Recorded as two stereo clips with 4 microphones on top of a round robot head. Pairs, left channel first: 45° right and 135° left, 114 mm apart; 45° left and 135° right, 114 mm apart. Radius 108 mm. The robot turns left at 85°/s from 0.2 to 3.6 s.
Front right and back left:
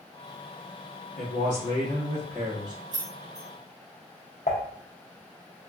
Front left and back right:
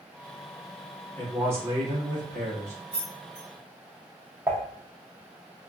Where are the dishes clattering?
65° right, 0.6 m.